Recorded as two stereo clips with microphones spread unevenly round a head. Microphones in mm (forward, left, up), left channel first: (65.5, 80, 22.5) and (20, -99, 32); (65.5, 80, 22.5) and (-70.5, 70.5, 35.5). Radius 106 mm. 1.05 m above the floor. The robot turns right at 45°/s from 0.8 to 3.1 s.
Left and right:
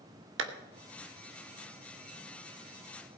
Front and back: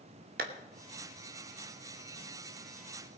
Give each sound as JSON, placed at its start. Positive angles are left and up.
{"t": 0.4, "sound": "a clap", "azimuth_deg": -140, "distance_m": 1.0}